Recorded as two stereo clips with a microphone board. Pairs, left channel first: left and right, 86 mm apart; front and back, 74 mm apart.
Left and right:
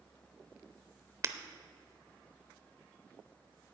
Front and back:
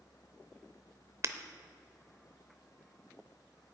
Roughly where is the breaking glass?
Behind right.